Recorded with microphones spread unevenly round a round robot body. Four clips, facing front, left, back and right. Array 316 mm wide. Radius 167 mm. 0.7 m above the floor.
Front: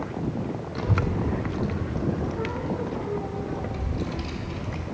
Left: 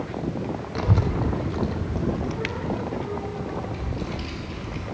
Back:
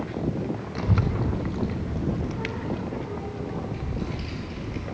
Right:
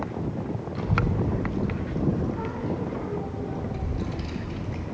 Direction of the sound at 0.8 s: 80° left.